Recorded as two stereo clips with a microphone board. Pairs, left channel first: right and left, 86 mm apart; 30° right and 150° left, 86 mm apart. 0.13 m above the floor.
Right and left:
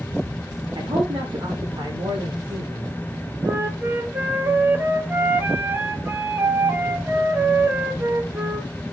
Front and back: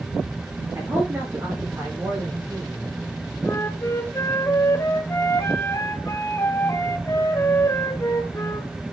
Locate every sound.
0.8 s a man speaking: 100° left, 8 m
3.5 s a flute: 25° left, 1.8 m